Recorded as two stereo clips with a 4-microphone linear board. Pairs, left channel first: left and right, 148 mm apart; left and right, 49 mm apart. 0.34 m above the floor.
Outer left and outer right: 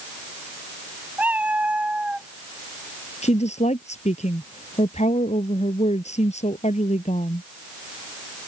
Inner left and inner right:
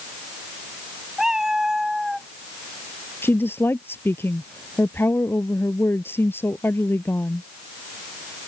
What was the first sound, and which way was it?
A cat meowing, 10° right (ahead or behind).